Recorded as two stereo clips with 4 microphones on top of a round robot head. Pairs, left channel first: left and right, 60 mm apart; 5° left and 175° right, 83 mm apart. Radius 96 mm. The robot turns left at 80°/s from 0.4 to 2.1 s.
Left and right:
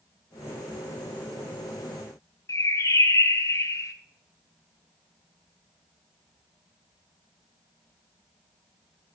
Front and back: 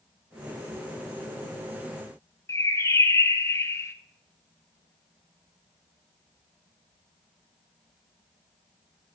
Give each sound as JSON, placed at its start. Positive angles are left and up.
{"t": 2.5, "sound": "a bird", "azimuth_deg": 60, "distance_m": 0.7}